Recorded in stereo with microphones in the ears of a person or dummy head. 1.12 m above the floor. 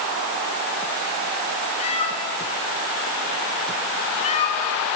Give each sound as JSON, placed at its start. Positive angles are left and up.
{"t": 1.8, "sound": "a cat meowing", "side_deg": 35, "distance_m": 4.0}